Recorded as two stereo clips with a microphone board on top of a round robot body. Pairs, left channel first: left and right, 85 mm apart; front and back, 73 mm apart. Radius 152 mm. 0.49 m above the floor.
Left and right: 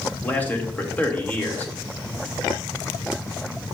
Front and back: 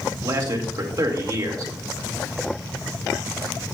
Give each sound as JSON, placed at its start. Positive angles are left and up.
{"t": 0.2, "sound": "a man speaking", "azimuth_deg": 160, "distance_m": 1.7}